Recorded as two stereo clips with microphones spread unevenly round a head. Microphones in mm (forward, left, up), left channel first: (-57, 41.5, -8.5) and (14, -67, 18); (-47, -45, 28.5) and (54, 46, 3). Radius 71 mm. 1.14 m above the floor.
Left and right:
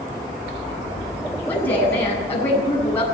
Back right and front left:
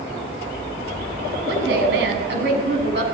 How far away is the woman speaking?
About 8.5 m.